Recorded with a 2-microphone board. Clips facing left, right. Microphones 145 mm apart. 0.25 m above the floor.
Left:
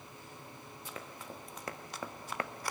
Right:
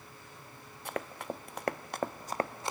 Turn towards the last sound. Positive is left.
turn(degrees=-20)  # may be behind; listen again after turning